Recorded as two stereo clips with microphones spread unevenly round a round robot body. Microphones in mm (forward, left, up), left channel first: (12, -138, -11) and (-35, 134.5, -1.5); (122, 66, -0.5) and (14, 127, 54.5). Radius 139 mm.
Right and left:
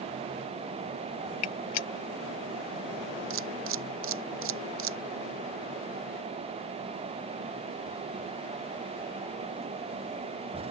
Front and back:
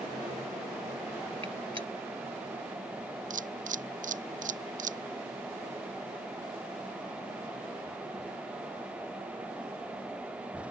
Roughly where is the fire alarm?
No fire alarm in this recording.